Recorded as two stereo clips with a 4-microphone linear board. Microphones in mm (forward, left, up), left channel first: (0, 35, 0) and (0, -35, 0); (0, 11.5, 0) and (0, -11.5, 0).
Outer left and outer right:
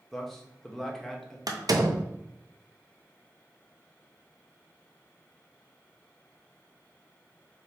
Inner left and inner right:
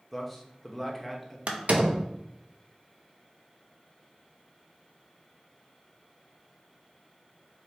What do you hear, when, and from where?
0.1 s a man speaking: 5° left (ahead or behind), 0.9 m
1.5 s a door slam: 65° right (ahead or behind), 0.6 m